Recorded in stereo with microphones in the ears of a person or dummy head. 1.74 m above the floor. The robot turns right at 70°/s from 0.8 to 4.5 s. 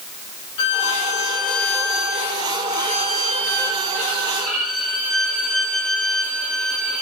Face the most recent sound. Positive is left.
turn(degrees=5)